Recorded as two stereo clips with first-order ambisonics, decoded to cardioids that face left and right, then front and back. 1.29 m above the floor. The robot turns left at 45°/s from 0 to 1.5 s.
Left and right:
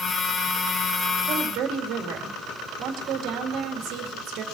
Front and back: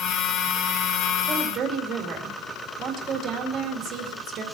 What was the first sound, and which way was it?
A woman speaking, 115° right.